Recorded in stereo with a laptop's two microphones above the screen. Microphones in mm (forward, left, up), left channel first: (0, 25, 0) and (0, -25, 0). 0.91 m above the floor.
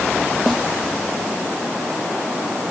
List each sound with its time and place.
0.5 s a snare drum: 5° left (ahead or behind)